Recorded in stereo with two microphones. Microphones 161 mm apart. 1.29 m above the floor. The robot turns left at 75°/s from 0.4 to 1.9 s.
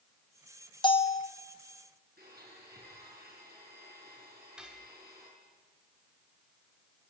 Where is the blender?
80° right, 9.5 m.